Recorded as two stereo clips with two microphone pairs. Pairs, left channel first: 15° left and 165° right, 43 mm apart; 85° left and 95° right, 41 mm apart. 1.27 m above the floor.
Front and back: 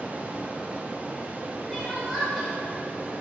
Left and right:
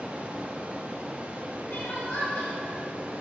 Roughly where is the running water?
Behind right.